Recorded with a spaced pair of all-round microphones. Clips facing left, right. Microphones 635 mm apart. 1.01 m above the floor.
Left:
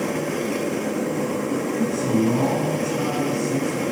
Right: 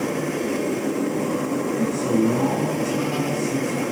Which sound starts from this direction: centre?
A man speaking, at 1.8 s.